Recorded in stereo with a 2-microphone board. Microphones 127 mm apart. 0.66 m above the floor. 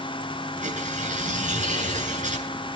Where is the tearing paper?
75° right (ahead or behind), 8 m.